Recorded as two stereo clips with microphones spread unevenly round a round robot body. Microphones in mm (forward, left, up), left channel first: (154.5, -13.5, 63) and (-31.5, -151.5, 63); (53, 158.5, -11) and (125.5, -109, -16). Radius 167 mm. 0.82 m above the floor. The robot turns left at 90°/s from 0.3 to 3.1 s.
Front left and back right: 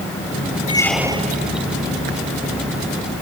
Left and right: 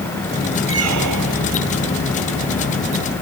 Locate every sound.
0.7 s a squeak: 30° right; by 1.5 s 105° right